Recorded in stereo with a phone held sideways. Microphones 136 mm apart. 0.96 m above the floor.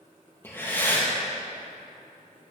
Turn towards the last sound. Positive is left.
turn(degrees=15)  # may be behind; listen again after turning